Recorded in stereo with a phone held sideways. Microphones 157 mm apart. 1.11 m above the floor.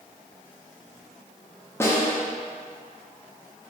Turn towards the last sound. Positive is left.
turn(degrees=15)  # may be behind; listen again after turning